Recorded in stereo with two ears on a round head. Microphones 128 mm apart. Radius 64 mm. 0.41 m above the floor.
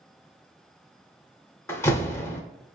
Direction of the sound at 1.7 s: 20° left (ahead or behind).